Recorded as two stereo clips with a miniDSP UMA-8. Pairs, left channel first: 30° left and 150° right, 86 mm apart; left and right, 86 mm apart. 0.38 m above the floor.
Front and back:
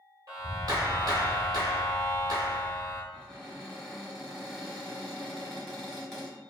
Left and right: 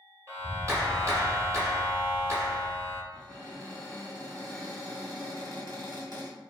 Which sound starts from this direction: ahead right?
A cupboard door, at 3.1 s.